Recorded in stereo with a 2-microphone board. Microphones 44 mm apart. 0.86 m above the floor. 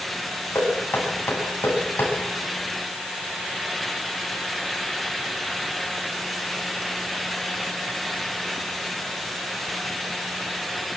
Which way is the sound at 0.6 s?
45° left (ahead or behind).